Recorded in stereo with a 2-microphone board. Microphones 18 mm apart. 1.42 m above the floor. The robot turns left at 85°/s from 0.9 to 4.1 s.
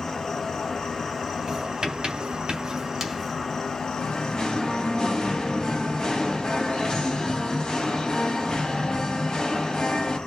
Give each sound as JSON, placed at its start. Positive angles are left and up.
{"t": 0.0, "sound": "an insect", "azimuth_deg": 20, "distance_m": 1.8}
{"t": 1.5, "sound": "writing", "side_deg": -30, "distance_m": 2.5}
{"t": 4.0, "sound": "singing", "side_deg": 40, "distance_m": 3.0}